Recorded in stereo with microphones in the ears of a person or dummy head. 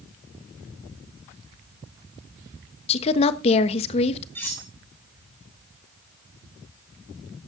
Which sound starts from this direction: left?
A woman speaking, at 2.9 s.